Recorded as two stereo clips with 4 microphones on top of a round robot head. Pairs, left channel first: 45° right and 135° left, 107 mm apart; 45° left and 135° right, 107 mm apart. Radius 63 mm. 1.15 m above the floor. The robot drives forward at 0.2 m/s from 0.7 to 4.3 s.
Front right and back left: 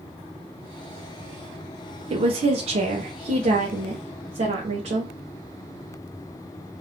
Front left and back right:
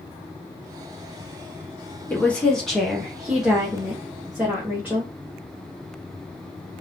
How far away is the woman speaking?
About 0.5 m.